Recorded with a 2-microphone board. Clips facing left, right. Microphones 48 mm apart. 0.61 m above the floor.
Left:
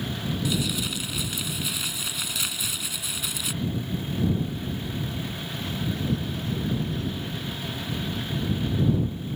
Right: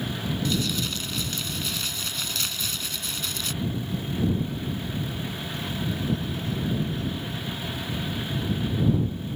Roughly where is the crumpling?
Centre.